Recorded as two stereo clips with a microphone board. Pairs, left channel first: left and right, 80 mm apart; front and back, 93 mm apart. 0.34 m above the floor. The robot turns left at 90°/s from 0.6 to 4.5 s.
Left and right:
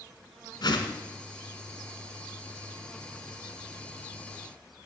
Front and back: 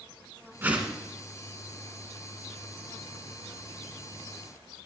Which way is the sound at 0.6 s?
115° left.